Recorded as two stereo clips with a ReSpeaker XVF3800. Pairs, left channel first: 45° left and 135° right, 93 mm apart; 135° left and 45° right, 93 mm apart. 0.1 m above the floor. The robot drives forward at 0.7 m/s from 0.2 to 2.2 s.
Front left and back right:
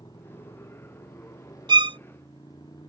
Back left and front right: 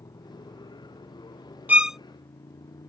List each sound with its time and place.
0.0 s a motorcycle: 90° left; by 2.9 s 95° left
1.7 s a violin: 115° right; by 2.0 s 135° right